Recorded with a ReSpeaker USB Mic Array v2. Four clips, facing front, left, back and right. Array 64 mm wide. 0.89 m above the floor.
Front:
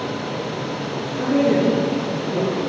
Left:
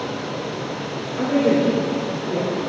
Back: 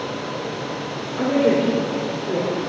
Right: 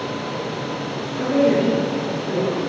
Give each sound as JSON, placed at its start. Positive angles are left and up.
{"t": 1.2, "sound": "a woman speaking", "azimuth_deg": 165, "distance_m": 3.5}